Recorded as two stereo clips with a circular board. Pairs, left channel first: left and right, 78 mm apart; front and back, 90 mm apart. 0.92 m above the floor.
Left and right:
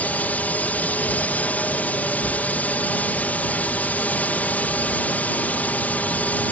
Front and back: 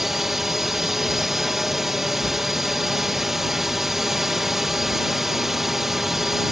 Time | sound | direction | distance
0.0 | a drone | 100° left | ?